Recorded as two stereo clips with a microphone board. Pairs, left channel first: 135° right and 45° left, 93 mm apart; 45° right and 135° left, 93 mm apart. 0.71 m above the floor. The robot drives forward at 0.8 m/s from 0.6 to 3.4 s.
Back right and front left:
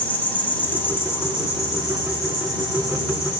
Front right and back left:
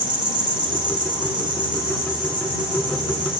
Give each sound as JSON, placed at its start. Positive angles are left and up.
{"t": 0.0, "sound": "an insect", "azimuth_deg": 155, "distance_m": 1.0}